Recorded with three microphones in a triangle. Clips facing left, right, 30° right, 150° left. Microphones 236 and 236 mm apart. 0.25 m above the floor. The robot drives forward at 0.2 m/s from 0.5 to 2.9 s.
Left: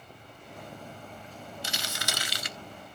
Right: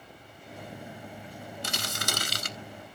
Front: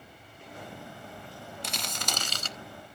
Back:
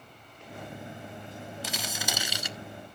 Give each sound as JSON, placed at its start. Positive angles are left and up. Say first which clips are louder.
{"t": 1.6, "sound": "crumpling", "louder": "right 4 dB, back 1 dB", "azimuth_deg": -120, "distance_m": 0.8}